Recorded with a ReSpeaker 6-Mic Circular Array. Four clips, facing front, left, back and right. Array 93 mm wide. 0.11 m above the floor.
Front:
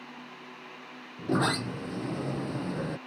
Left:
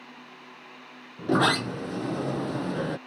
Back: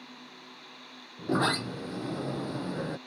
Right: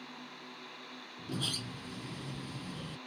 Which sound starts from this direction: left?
A sliding door, at 1.2 s.